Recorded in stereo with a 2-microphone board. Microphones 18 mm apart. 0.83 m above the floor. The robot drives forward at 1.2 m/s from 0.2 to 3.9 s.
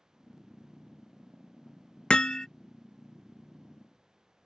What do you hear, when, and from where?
2.1 s hammering: 65° left (ahead or behind); by 2.5 s 35° left (ahead or behind)